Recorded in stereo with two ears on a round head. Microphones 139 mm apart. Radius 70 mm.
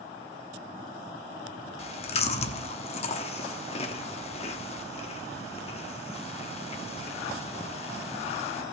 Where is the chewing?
40° left (ahead or behind), 0.9 m.